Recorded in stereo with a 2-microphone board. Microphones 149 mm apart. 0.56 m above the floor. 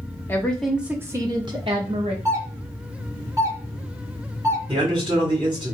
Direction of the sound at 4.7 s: 35° right (ahead or behind).